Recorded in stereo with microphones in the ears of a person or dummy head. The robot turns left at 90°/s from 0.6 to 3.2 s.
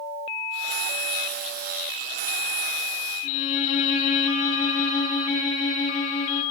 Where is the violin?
60° left (ahead or behind), 5.5 m.